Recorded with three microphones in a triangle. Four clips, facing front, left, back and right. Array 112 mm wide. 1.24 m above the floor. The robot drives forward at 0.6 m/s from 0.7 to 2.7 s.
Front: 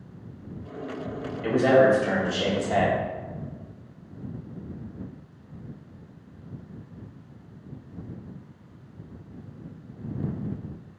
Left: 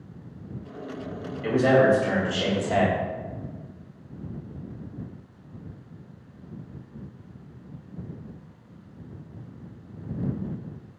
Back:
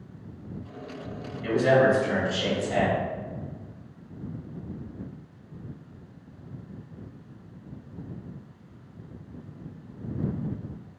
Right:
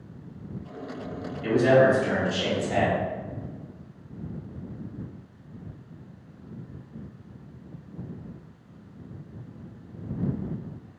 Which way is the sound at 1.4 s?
25° left.